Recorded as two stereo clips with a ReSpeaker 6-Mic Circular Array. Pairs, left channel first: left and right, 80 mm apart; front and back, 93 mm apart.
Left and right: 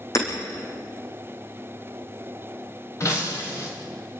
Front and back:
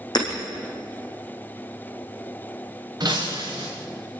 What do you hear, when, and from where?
0.1 s hammering: 40° left, 5 m
3.0 s breaking glass: 140° left, 5.5 m